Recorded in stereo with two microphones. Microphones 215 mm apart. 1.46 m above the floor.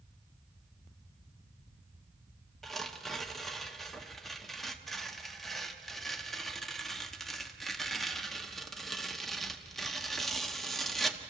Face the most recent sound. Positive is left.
turn(degrees=0)  # may be behind; listen again after turning